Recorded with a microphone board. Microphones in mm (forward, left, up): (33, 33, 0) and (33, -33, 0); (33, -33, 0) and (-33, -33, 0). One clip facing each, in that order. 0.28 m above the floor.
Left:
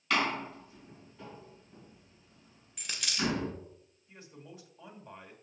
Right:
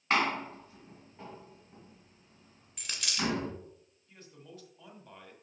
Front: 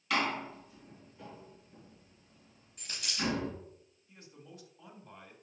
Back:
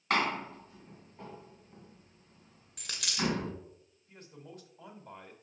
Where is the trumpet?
No trumpet in this recording.